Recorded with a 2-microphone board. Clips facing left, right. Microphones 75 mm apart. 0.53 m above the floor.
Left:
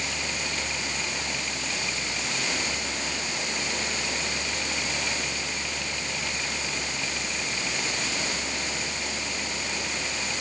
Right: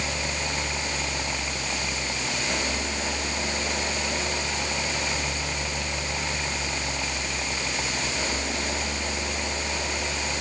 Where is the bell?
No bell in this recording.